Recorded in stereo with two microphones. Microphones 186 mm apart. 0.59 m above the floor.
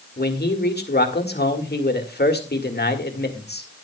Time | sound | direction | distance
0.2 | a man speaking | 60° left (ahead or behind) | 1.9 m